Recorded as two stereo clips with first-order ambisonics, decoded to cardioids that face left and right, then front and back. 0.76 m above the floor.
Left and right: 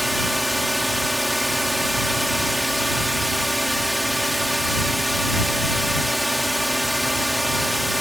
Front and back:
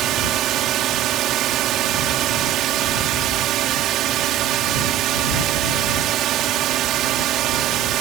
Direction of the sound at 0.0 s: Straight behind.